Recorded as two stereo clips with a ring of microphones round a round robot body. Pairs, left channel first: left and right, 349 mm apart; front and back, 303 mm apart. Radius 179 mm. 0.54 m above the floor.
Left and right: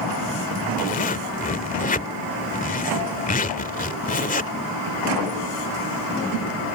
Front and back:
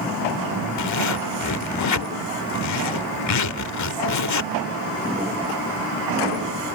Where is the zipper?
25° left.